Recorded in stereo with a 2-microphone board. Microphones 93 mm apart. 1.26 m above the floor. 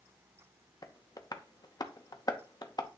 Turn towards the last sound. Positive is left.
turn(degrees=45)  # may be behind; listen again after turning